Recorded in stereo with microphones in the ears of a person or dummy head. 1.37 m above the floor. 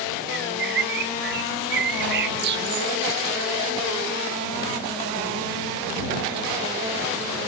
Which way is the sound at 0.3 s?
60° right (ahead or behind).